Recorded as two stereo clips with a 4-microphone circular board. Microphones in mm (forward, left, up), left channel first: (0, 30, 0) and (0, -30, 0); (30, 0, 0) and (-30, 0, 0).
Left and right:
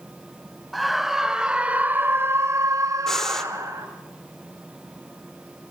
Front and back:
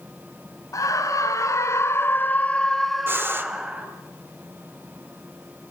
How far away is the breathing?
About 1.5 m.